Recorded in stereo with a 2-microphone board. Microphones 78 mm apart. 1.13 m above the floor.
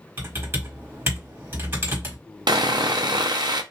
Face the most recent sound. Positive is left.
turn(degrees=-70)  # may be behind; listen again after turning